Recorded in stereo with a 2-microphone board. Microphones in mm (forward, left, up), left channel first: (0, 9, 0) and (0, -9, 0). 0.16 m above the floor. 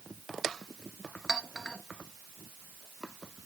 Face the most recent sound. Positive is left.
turn(degrees=40)  # may be behind; listen again after turning